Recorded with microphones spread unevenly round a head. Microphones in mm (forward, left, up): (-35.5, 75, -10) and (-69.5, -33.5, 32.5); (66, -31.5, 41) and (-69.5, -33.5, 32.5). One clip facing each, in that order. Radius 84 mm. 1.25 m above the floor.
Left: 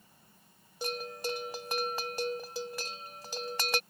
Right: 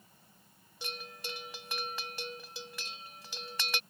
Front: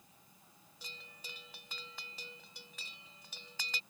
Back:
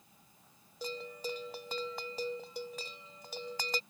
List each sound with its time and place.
0.8 s a bell: 125° left